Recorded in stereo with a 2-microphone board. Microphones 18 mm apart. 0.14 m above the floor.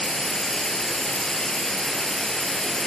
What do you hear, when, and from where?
0.0 s running water: 35° left (ahead or behind), 2 m